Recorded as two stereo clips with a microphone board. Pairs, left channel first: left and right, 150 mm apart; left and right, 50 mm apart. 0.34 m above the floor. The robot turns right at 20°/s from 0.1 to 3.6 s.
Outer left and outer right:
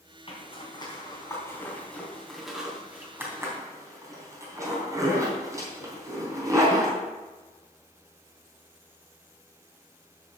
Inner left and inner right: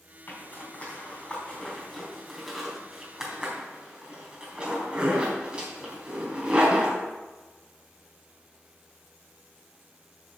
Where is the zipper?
40° left (ahead or behind), 3 m; by 7.0 s 20° right (ahead or behind), 3 m.